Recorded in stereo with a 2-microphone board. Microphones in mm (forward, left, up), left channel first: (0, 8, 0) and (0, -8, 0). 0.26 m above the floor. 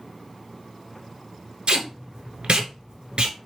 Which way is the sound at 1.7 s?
65° right (ahead or behind).